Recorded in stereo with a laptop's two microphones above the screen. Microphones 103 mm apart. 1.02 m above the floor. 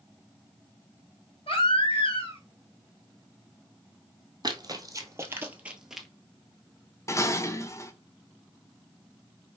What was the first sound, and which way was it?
A baby crying, 75° left (ahead or behind).